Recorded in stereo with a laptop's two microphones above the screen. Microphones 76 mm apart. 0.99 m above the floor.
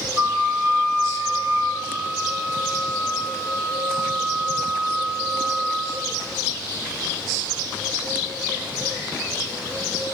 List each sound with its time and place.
0.2 s a flute: 25° right (ahead or behind), 2.0 m
1.7 s a flute: 15° right (ahead or behind), 1.0 m